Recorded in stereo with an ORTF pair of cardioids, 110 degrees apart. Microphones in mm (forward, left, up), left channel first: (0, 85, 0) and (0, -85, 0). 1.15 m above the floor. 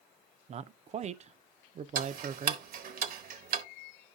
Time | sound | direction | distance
0.5 | a man speaking | 40° right | 0.6 m
1.9 | ticking | 60° right | 0.9 m